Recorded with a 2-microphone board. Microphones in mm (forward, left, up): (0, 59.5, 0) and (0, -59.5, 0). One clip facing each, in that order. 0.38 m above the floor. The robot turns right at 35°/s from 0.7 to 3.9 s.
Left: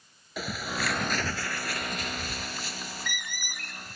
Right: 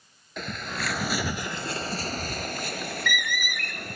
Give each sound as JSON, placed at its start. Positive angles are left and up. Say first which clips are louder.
{"t": 0.4, "sound": "a bird", "louder": "left 1 dB", "side_deg": 5}